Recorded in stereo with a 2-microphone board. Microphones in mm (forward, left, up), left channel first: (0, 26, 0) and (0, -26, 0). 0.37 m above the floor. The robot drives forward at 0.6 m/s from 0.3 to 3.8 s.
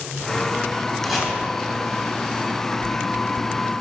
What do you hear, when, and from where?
1.0 s chopping: 5° right (ahead or behind), 2.5 m